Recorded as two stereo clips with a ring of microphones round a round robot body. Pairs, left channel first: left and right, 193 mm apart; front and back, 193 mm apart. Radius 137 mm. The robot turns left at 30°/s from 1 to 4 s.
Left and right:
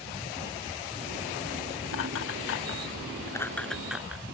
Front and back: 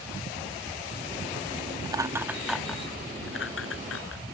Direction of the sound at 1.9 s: 110° left.